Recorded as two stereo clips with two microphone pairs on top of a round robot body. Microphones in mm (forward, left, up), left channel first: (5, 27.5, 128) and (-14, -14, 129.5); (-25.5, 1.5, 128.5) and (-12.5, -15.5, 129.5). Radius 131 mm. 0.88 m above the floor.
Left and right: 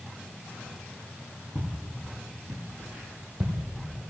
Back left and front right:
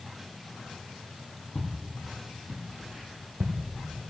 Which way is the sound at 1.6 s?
165° right.